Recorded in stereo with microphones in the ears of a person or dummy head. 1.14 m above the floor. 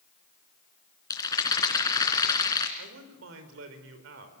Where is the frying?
No frying in this recording.